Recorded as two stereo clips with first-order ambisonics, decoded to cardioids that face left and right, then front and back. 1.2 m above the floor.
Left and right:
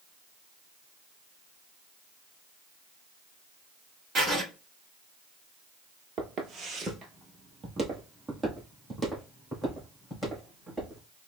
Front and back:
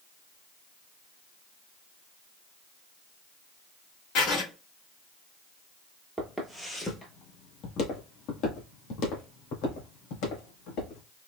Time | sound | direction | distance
4.2 | writing | 25° right | 2.5 m
6.2 | footsteps | 100° right | 1.3 m